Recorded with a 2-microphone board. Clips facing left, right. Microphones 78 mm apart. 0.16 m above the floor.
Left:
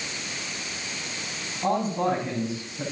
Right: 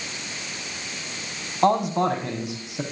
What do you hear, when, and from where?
1.6 s a man speaking: 80° right, 6 m